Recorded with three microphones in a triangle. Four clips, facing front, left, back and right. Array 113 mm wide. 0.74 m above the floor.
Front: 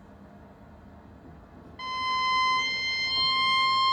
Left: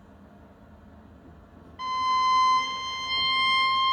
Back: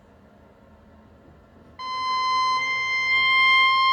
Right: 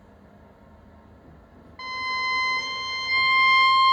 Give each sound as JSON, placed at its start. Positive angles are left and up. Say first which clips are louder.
{"t": 0.0, "sound": "an insect", "louder": "even, front 2 dB", "azimuth_deg": -40, "distance_m": 1.8}
{"t": 1.8, "sound": "a violin", "louder": "left 6 dB, back 4 dB", "azimuth_deg": -130, "distance_m": 0.9}